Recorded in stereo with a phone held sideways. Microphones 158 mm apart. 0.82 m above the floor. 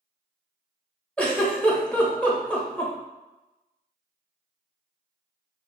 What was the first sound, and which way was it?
A giggle, 10° left (ahead or behind).